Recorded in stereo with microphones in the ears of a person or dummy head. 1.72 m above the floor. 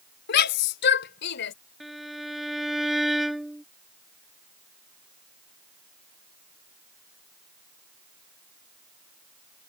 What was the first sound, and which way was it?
A shout, 55° left (ahead or behind).